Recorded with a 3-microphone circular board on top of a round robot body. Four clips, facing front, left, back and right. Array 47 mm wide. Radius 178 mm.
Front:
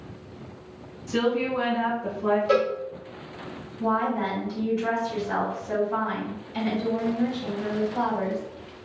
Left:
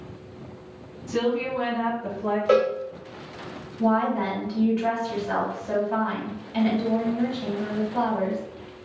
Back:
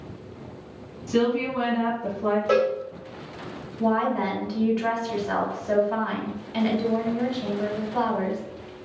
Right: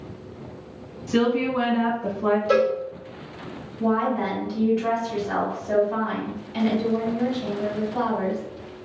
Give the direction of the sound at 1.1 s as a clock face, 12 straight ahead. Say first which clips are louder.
Right 3 dB, back 1 dB; 3 o'clock.